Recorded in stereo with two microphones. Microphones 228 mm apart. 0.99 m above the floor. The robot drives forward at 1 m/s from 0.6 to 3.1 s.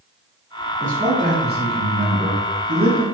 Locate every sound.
0.8 s a man speaking: 35° right (ahead or behind), 3.5 m; by 3.0 s 65° right (ahead or behind), 2 m